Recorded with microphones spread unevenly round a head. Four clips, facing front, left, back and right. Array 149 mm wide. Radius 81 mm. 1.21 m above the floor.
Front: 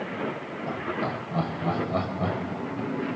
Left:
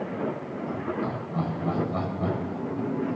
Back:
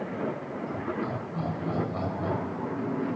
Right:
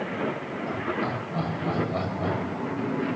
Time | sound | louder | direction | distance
0.7 | laughter | right 1 dB, front 3 dB | 10° right | 8.5 m